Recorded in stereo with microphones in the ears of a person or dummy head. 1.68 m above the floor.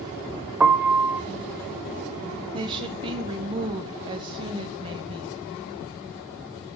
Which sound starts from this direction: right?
A woman speaking, at 2.5 s.